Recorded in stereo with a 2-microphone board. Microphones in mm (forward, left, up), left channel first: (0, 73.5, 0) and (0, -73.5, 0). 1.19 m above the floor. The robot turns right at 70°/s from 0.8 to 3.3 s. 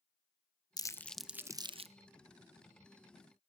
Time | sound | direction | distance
0.8 | crumpling | 25° left (ahead or behind) | 0.6 m